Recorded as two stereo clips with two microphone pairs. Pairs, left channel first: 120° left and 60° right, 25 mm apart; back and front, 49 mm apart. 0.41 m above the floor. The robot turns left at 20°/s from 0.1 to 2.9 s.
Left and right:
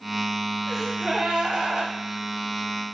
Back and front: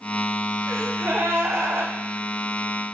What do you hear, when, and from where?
0.7 s a gasp: 15° left, 1.1 m; by 1.9 s 10° right, 1.1 m